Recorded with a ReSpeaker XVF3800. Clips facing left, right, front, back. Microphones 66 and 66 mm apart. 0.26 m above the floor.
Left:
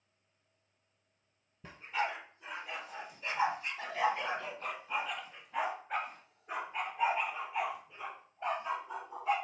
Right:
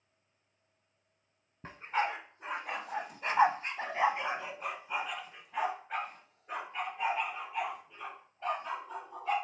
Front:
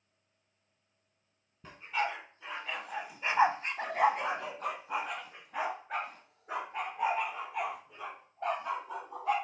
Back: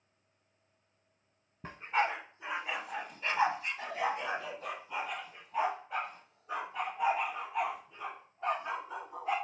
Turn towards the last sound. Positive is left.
turn(degrees=15)